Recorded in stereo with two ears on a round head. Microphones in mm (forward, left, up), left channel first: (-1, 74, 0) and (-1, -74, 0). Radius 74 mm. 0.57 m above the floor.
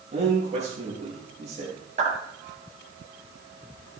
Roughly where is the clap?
Right.